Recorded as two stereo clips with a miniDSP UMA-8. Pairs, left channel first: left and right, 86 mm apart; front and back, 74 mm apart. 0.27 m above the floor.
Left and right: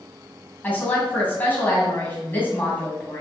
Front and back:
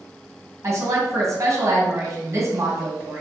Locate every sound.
0.6 s a woman speaking: 155° left, 1.6 m